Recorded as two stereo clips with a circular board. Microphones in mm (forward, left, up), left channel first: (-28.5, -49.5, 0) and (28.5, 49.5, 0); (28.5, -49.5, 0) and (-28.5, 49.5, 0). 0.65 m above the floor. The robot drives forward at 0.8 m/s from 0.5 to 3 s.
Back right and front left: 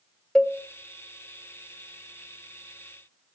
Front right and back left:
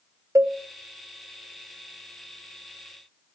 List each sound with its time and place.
0.3 s a cowbell: 160° left, 0.6 m